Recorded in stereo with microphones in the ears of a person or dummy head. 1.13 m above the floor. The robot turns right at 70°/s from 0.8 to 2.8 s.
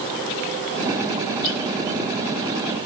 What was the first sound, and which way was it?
Only background noise.